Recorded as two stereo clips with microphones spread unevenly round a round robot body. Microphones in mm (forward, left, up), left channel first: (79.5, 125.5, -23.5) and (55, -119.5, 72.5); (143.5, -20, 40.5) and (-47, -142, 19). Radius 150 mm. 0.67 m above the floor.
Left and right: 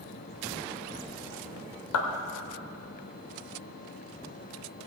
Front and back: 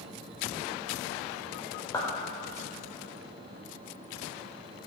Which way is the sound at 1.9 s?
110° left.